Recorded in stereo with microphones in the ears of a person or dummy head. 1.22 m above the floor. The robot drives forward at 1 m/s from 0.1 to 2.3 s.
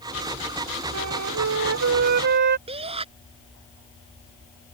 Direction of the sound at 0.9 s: 85° right.